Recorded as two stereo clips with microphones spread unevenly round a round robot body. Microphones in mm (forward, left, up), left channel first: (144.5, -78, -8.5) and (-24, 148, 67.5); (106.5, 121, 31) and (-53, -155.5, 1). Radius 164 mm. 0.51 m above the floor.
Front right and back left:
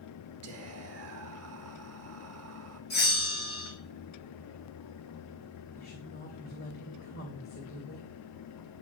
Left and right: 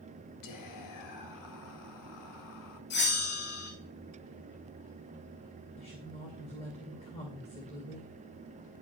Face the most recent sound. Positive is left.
turn(degrees=-15)